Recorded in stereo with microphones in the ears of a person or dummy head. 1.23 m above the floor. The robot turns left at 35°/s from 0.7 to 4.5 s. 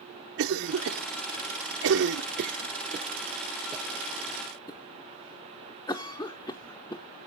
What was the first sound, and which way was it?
A cough, 60° right (ahead or behind).